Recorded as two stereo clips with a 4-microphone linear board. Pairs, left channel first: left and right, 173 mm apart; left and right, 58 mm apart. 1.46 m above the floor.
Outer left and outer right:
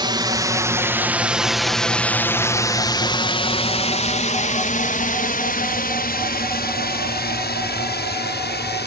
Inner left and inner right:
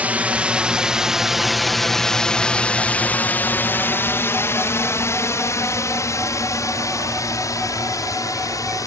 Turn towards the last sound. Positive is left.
turn(degrees=70)  # may be behind; listen again after turning